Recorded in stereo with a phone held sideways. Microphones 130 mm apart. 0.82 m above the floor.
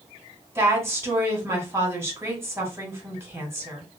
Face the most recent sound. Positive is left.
turn(degrees=-20)  # may be behind; listen again after turning